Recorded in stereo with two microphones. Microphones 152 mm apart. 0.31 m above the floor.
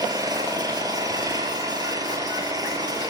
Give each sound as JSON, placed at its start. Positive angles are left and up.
{"t": 0.0, "sound": "an engine running", "side_deg": -20, "distance_m": 3.0}